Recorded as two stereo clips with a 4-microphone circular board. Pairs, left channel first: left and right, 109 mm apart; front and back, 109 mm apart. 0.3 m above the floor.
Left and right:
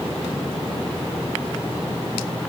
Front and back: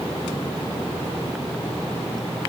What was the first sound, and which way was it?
Only background noise.